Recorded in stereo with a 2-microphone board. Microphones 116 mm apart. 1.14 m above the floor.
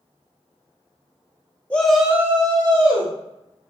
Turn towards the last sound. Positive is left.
turn(degrees=-50)  # may be behind; listen again after turning